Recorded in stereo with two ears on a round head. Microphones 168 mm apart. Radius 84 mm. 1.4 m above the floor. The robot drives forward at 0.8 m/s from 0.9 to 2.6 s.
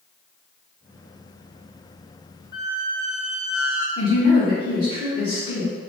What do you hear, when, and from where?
2.5 s a squeak: 20° right (ahead or behind), 1.1 m
4.0 s a woman speaking: 25° left (ahead or behind), 1.6 m